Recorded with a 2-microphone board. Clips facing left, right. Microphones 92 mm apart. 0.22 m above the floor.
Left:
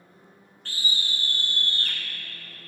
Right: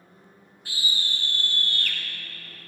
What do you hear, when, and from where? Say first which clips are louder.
0.7 s a scream: even; 10° right (ahead or behind), 2.5 m; by 2.0 s 40° left (ahead or behind), 2.0 m